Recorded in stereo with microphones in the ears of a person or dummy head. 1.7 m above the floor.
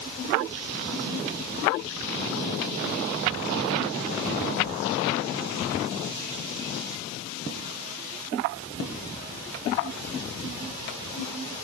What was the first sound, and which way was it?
Only background noise.